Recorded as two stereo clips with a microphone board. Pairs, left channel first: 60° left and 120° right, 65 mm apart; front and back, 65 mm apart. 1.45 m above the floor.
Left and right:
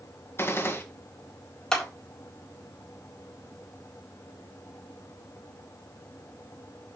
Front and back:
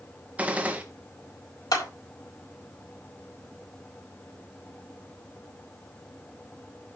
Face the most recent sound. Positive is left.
turn(degrees=-15)